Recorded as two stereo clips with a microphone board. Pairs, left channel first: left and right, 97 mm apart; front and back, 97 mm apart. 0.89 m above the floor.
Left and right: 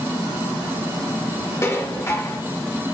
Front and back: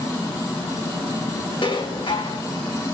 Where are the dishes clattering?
30° left, 1.9 m.